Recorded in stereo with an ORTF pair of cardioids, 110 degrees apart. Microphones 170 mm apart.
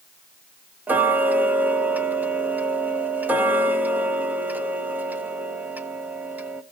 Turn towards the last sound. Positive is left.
turn(degrees=-10)